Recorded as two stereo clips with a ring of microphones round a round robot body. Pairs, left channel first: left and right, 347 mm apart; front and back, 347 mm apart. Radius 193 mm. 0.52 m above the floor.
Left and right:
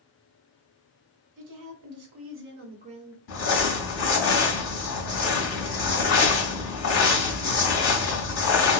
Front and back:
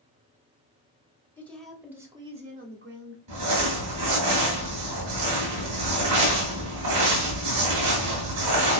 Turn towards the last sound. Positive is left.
turn(degrees=135)